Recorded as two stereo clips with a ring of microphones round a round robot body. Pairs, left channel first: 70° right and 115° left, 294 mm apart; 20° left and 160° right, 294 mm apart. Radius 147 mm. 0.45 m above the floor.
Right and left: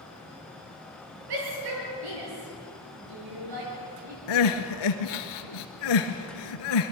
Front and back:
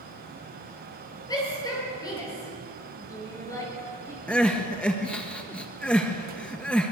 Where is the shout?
100° left, 9 m; by 4.2 s 105° left, 7 m.